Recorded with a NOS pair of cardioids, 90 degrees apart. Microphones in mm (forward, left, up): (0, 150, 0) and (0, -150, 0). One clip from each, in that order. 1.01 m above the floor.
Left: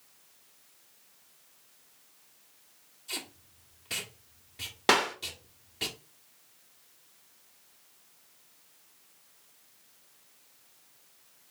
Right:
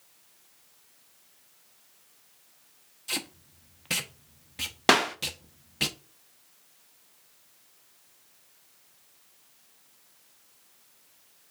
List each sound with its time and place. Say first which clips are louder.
3.1 s tape being pulled: right 5 dB; 50° right, 1.0 m
4.9 s a clap: right 3 dB; 15° right, 0.6 m